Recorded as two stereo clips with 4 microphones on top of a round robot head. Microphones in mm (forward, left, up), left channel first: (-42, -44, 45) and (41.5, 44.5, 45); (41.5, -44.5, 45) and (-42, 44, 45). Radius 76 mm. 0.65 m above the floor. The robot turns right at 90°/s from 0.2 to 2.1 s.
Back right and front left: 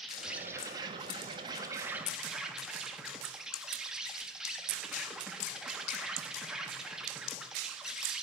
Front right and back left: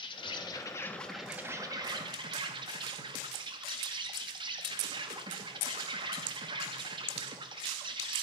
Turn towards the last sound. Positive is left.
turn(degrees=130)